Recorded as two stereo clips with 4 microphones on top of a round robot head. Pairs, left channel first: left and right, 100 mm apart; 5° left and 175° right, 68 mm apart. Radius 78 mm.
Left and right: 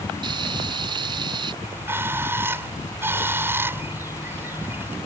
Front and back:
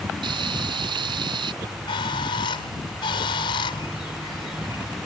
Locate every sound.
0.2 s frying: 145° right
1.6 s a bird: 20° right